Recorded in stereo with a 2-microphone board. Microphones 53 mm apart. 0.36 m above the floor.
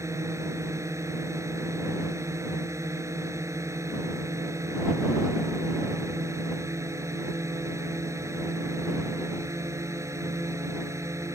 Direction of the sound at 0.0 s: 75° right (ahead or behind).